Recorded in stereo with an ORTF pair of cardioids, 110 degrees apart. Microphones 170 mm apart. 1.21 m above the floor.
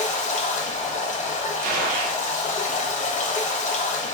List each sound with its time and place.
0.0 s running water: 45° left, 0.8 m
1.6 s a gunshot: 60° right, 0.6 m